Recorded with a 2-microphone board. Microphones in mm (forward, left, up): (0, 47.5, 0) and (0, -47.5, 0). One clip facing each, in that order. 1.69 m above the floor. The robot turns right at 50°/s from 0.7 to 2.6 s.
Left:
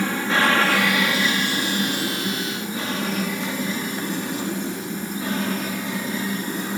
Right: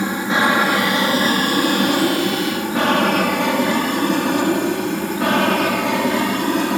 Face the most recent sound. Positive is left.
turn(degrees=-70)  # may be behind; listen again after turning